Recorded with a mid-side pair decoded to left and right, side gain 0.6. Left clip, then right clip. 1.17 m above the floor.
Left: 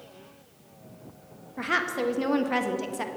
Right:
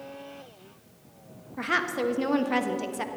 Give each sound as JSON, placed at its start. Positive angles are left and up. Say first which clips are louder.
{"t": 1.6, "sound": "a woman speaking", "louder": "even", "azimuth_deg": 0, "distance_m": 1.1}